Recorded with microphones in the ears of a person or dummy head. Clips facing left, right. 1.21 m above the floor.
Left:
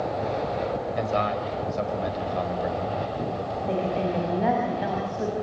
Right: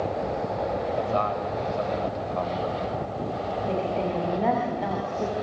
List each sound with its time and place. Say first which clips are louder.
0.9 s a man speaking: even; 25° left (ahead or behind), 6 m; by 3.6 s 10° left (ahead or behind), 5.5 m
3.7 s a woman speaking: left 2 dB; 5° left (ahead or behind), 7.5 m